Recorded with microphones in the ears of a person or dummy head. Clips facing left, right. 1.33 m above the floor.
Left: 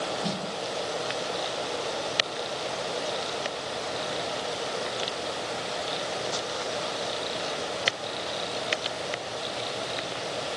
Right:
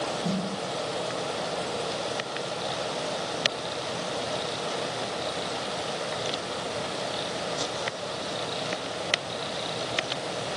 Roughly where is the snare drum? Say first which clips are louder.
Right 3 dB; left.